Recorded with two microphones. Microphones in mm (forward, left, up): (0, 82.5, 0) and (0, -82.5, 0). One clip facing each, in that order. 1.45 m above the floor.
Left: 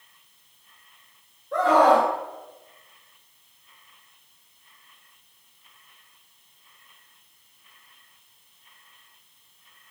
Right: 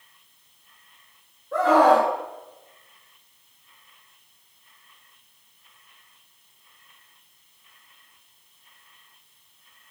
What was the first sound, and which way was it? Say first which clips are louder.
A scream: right 1 dB; centre (ahead or behind).